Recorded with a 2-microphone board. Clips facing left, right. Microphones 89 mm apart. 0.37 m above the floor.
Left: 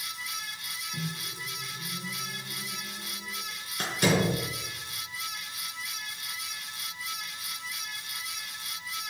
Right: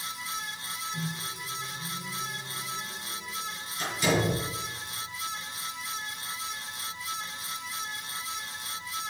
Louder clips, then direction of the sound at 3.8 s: Left 1 dB; 60° left (ahead or behind).